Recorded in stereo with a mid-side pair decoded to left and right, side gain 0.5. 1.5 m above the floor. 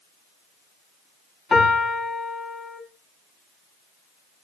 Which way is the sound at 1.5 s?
40° left.